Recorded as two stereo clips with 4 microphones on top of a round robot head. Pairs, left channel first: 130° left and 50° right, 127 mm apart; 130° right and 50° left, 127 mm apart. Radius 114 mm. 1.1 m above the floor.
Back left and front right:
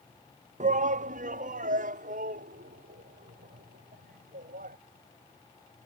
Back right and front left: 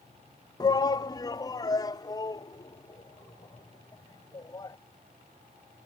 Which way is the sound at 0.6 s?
70° right.